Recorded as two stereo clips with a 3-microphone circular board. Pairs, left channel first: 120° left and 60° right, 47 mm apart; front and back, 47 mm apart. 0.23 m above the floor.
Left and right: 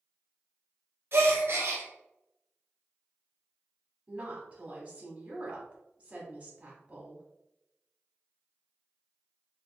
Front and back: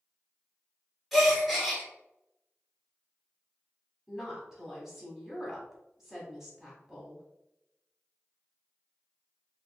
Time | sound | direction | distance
1.1 | a gasp | 90° right | 1.3 m
4.1 | a woman speaking | 105° right | 1.5 m